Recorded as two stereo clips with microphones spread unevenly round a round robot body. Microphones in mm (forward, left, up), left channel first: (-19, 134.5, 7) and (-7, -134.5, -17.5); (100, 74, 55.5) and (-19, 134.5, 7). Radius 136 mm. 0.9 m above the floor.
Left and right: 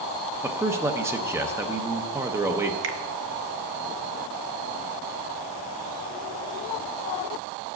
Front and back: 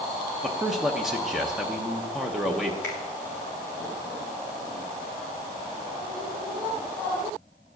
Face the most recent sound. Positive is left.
turn(degrees=-115)